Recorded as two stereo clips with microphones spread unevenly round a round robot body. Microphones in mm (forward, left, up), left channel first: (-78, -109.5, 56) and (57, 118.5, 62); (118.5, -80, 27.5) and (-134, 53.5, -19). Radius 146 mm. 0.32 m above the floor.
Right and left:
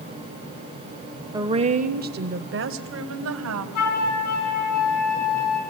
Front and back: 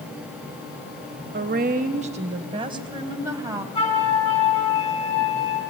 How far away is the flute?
About 3 m.